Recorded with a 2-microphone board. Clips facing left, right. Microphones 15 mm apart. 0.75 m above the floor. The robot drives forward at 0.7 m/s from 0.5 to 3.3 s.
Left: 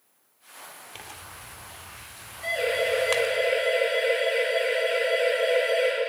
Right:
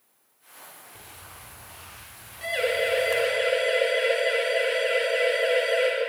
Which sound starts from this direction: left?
Tearing paper, at 0.9 s.